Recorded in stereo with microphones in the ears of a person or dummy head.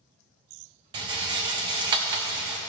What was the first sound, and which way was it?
A rattle, 25° right (ahead or behind).